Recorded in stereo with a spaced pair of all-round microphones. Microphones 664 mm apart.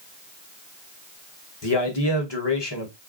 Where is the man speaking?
40° left (ahead or behind), 1.0 m.